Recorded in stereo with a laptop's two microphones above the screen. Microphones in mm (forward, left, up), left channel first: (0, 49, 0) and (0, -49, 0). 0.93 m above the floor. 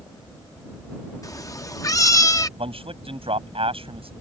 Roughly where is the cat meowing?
Left.